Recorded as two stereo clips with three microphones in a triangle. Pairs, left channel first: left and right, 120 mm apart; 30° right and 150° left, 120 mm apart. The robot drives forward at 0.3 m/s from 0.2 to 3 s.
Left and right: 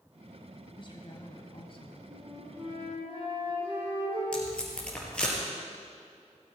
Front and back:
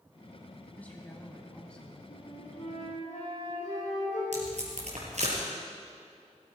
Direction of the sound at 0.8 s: 45° left.